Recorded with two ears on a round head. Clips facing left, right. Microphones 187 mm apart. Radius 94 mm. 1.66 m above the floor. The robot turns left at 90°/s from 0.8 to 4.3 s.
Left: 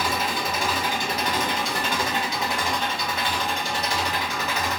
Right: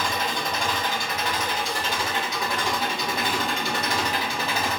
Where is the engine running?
175° left, 1.2 m; by 4.8 s 140° right, 1.2 m.